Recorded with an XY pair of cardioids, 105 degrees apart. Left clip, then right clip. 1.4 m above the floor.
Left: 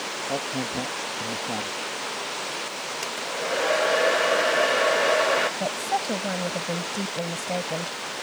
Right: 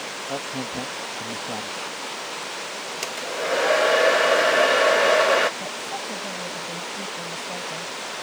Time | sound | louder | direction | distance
0.3 | a man speaking | left 1 dB | 5° left | ?
3.0 | a hair dryer | right 3 dB | 30° right | ?
5.6 | a woman speaking | left 4 dB | 55° left | ?